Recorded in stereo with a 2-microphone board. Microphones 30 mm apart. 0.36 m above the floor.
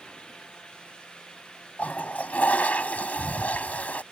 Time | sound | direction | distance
1.8 | a toilet flushing | 65° left (ahead or behind) | ?